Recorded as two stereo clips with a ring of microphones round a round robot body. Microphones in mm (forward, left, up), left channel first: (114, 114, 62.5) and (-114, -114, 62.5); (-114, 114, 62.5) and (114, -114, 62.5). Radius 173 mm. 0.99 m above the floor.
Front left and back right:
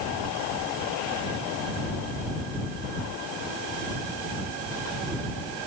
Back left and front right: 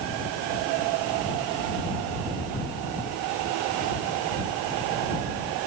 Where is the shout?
No shout in this recording.